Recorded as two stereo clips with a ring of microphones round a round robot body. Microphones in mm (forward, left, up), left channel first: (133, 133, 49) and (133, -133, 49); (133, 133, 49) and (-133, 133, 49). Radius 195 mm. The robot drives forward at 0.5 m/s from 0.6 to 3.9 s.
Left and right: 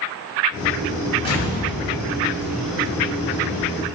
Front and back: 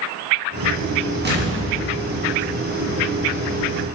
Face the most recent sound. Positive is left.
turn(degrees=170)